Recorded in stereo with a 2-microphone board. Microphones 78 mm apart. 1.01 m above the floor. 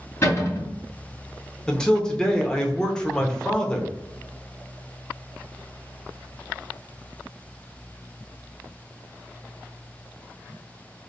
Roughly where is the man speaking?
Centre.